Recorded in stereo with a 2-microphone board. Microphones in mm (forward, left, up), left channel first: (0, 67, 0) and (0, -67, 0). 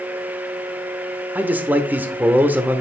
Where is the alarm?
No alarm in this recording.